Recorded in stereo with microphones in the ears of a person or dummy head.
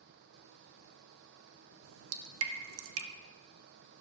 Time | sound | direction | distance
1.8 | dripping | 85° right | 1.5 m